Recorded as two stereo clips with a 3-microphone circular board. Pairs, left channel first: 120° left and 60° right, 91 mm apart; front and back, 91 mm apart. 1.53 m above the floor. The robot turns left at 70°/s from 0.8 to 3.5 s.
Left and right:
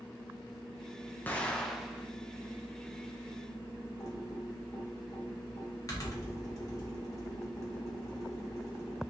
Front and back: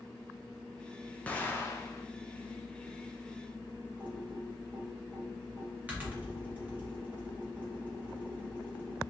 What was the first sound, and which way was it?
An explosion, 65° left.